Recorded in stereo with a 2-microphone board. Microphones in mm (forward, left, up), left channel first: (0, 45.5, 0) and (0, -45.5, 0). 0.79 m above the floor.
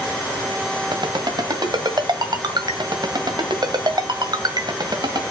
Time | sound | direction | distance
0.9 | a ringtone | 55° right (ahead or behind) | 1.7 m